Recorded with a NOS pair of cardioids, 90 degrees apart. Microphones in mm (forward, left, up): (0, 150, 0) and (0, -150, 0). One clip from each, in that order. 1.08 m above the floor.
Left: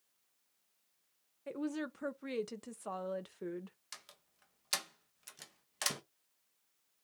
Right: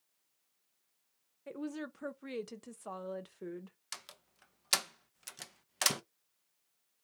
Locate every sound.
1.5 s a woman speaking: 5° left, 0.6 m
3.9 s a door slam: 30° right, 0.6 m